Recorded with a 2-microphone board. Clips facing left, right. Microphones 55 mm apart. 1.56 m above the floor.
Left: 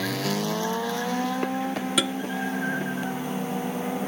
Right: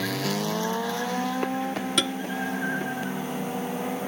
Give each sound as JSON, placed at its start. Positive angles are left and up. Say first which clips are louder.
{"t": 2.0, "sound": "tapping", "louder": "left 1 dB", "side_deg": 10}